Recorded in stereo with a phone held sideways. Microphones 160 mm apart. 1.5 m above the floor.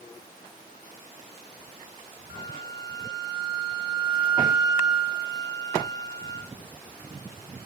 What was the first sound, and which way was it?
A flute, 30° right (ahead or behind).